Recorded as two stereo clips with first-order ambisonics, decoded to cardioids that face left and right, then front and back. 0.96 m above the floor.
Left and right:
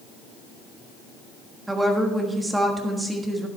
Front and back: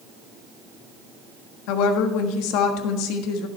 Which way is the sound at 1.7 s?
10° right.